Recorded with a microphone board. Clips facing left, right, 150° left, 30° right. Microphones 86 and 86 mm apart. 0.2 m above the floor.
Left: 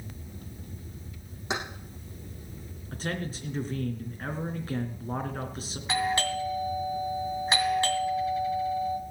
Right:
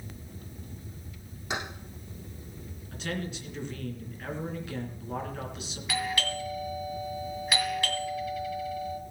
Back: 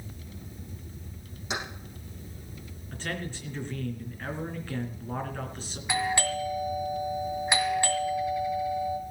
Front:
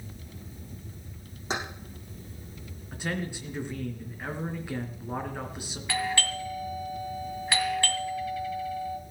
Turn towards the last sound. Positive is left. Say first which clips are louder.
# left 4 dB, back 2 dB
turn(degrees=95)